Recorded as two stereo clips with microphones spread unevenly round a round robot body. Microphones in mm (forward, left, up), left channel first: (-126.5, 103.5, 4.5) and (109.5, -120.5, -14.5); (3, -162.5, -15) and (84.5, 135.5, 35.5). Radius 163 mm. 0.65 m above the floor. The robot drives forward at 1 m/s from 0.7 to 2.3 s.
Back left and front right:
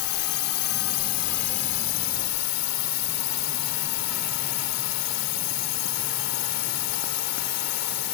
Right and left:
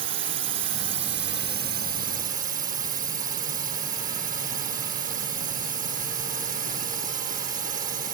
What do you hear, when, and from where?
0.0 s a drone: 130° left; by 8.1 s 145° left